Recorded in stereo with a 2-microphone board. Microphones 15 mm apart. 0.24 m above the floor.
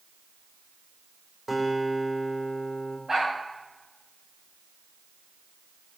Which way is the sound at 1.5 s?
15° right (ahead or behind).